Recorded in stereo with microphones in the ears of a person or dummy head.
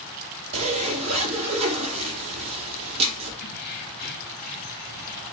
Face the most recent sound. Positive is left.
turn(degrees=50)  # may be behind; listen again after turning